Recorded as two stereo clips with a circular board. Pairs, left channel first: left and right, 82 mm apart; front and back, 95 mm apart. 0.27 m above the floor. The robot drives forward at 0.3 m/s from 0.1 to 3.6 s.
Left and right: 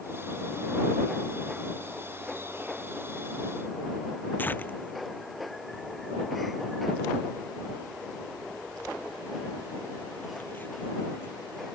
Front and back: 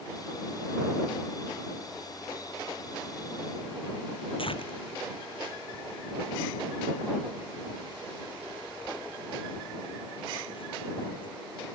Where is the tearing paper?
20° left.